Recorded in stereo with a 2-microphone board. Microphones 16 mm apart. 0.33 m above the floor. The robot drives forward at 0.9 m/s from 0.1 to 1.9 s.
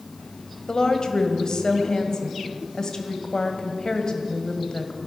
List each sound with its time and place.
0.7 s a woman speaking: 45° left (ahead or behind), 1.7 m